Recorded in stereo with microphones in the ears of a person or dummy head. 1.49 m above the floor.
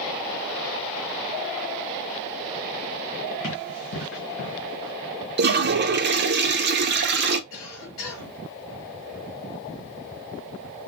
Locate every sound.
3.4 s running footsteps: 50° left (ahead or behind), 3 m; by 4.9 s 45° left (ahead or behind), 2 m
5.4 s a toilet flushing: 55° right (ahead or behind), 0.6 m
7.5 s a cough: 70° left (ahead or behind), 1.8 m